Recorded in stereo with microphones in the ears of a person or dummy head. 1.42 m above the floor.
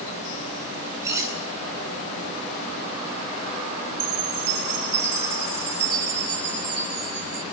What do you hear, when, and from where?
1.0 s cutlery clinking: 15° right (ahead or behind), 8 m
4.0 s a chime: 55° right (ahead or behind), 4.5 m